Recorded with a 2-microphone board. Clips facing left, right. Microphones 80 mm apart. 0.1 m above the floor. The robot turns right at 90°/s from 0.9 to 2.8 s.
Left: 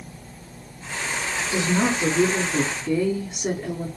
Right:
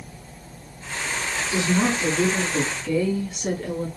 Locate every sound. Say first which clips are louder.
1.5 s a woman speaking: even; 5° left (ahead or behind), 1.3 m; by 3.9 s 20° left (ahead or behind), 1.3 m